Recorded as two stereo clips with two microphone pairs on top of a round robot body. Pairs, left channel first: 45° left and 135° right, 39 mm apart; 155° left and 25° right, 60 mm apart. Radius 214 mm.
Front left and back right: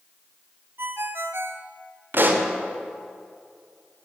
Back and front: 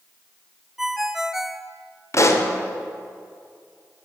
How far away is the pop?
About 1.8 m.